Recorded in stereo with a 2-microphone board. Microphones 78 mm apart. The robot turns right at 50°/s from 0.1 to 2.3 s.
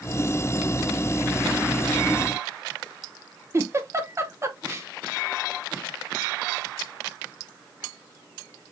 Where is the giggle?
35° right (ahead or behind), 1.0 m.